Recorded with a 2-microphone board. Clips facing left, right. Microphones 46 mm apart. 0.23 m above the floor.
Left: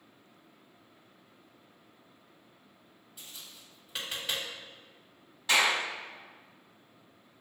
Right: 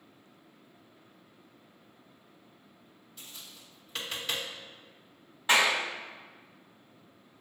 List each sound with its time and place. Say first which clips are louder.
3.2 s tapping: even; 10° left (ahead or behind), 1.6 m
5.5 s a clap: right 1 dB; 25° right (ahead or behind), 1.1 m